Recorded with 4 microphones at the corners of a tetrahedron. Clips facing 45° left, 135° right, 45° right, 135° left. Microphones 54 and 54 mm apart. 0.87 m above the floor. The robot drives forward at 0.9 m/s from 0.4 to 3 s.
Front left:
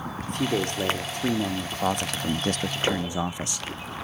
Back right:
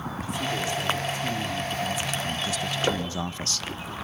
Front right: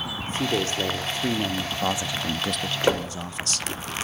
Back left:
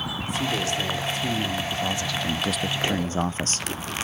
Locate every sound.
0.3 s a man speaking: 10° left, 2.5 m; by 3.7 s 110° left, 0.6 m
2.9 s knocking: 45° right, 3 m